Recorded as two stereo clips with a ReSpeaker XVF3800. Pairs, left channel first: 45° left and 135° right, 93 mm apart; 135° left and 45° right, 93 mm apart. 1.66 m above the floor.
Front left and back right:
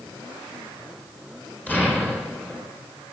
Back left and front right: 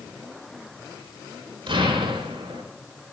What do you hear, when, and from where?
1.7 s an explosion: 25° right, 4.5 m